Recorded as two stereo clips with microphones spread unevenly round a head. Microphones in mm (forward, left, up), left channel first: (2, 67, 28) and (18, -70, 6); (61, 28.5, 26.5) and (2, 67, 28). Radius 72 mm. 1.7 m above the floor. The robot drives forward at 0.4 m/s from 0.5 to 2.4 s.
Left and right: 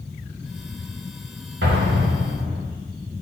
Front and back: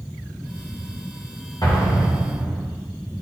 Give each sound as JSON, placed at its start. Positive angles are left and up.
{"t": 1.6, "sound": "an explosion", "azimuth_deg": -95, "distance_m": 1.4}